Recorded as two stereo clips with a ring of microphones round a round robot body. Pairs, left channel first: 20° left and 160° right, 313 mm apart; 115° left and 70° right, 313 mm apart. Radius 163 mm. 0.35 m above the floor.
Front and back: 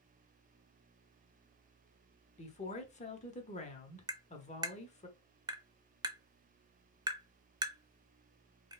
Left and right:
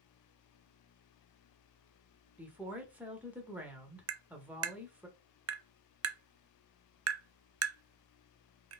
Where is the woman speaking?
10° left, 0.9 m.